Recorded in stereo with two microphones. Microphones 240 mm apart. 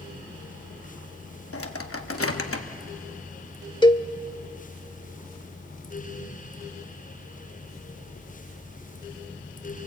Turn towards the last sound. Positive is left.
turn(degrees=20)  # may be behind; listen again after turning